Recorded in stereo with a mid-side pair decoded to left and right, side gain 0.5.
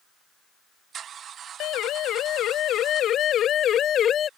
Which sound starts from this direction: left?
A siren, at 1.6 s.